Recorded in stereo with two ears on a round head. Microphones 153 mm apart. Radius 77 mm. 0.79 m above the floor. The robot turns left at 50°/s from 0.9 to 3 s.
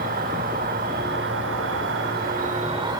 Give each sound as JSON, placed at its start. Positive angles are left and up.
{"t": 0.0, "sound": "an insect", "azimuth_deg": -55, "distance_m": 1.2}